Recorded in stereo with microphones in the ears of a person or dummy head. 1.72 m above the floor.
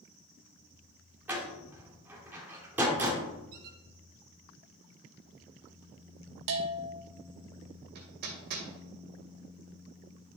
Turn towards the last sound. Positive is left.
turn(degrees=-65)  # may be behind; listen again after turning